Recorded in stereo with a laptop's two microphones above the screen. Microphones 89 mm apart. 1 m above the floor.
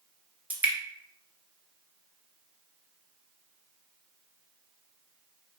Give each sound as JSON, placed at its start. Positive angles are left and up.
{"t": 0.5, "sound": "dripping", "side_deg": -20, "distance_m": 0.8}